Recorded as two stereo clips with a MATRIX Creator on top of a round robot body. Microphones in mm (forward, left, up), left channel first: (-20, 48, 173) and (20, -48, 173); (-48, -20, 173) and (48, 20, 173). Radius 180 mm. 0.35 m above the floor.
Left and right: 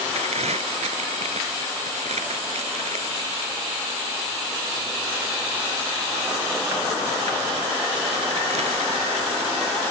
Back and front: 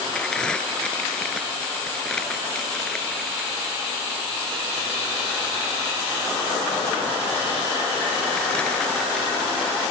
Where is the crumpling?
75° right.